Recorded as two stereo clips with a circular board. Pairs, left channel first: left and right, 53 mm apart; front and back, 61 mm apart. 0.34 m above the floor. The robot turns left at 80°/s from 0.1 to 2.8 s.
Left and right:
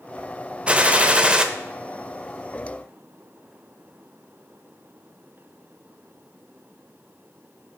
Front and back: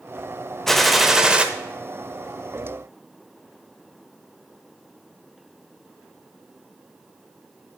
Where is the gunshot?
70° right, 0.7 m; by 1.4 s 135° right, 0.7 m.